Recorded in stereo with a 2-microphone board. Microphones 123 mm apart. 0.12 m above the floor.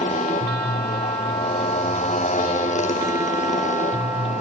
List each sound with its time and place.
0.0 s a motorcycle: 85° left